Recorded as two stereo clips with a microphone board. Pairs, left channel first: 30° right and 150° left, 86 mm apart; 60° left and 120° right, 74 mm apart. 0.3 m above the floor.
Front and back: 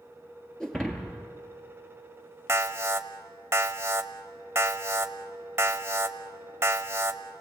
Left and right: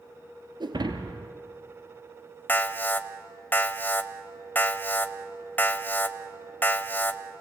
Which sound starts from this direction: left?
An alarm, at 2.5 s.